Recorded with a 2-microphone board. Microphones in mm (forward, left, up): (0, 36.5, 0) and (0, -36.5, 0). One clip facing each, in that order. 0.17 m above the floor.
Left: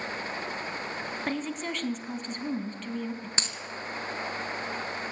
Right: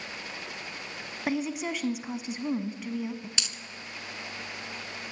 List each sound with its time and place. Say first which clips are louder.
1.3 s a woman speaking: right 4 dB; 10° right (ahead or behind), 1.2 m
3.4 s a dropped coin: left 3 dB; 35° left (ahead or behind), 0.9 m